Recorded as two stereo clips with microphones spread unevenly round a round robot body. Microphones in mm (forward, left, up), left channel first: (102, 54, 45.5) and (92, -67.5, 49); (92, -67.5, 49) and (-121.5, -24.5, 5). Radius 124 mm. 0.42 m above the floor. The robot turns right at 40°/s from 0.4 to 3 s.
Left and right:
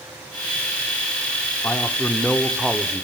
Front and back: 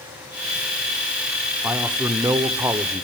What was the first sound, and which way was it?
A man speaking, 130° left.